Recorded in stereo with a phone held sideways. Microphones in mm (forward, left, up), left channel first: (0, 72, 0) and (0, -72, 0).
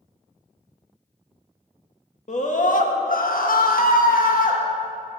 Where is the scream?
55° left (ahead or behind), 1.5 m; by 4.6 s 65° left (ahead or behind), 1.7 m.